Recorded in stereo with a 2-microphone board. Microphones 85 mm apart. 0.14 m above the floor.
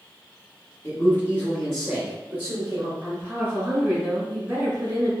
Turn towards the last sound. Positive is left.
turn(degrees=-15)  # may be behind; listen again after turning